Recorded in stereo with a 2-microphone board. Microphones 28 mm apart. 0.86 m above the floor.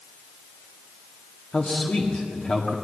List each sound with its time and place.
1.5 s a man speaking: 50° left (ahead or behind), 1.8 m